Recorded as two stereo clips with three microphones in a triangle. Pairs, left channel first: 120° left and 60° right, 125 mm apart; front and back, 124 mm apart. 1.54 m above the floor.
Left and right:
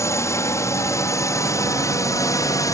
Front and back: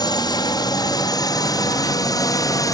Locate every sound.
0.0 s a drone: 55° left; by 2.7 s 60° left